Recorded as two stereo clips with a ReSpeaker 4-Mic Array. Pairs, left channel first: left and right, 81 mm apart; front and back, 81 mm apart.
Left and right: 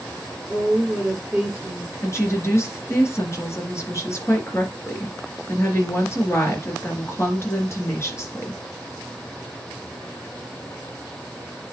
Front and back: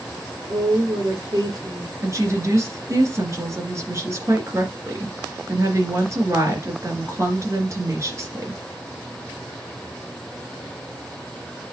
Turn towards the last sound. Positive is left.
turn(degrees=135)